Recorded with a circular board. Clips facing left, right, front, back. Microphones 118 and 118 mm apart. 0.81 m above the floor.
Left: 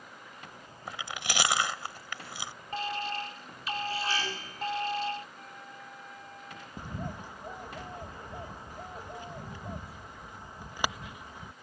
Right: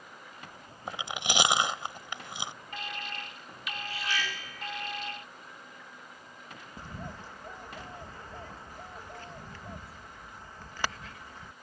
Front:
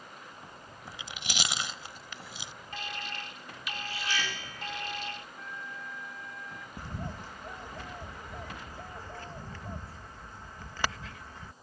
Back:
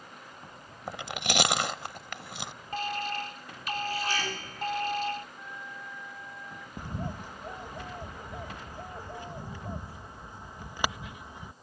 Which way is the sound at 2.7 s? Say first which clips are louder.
Left 11 dB, back 8 dB; 140° left.